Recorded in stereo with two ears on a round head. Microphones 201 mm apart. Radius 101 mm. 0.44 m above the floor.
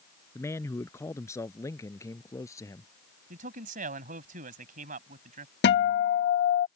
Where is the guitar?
50° left (ahead or behind).